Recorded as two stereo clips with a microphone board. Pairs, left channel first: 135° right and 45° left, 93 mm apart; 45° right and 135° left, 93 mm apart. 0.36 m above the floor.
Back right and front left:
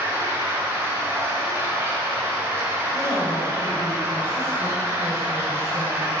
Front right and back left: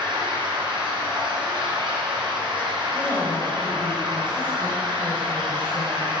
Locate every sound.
0.0 s running water: 110° left, 2 m
2.9 s a woman speaking: 110° right, 2.0 m